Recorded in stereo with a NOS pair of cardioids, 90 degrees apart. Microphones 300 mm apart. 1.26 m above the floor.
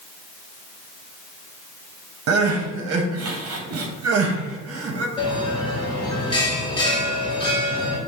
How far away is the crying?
About 0.7 m.